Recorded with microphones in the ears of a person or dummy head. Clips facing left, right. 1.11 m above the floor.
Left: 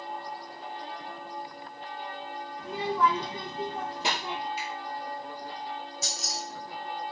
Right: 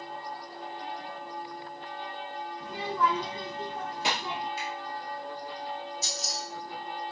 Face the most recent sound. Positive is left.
turn(degrees=65)  # may be behind; listen again after turning